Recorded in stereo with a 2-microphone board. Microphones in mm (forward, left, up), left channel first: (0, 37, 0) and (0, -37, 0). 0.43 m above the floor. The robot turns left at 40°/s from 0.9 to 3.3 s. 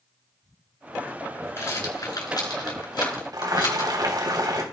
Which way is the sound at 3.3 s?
65° right (ahead or behind).